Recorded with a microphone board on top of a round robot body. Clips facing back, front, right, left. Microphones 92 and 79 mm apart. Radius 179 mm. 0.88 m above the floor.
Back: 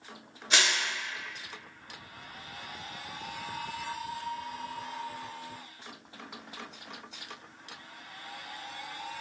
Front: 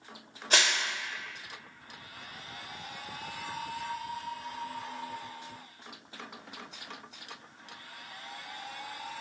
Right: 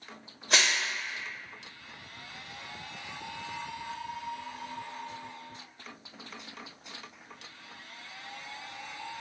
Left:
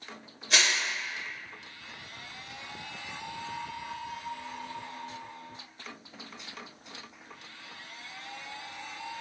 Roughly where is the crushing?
Ahead right.